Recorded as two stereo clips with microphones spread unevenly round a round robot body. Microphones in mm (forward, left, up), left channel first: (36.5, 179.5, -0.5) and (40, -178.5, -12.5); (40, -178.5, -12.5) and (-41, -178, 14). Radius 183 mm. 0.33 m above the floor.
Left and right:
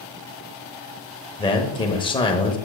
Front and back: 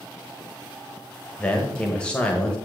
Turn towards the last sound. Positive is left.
turn(degrees=20)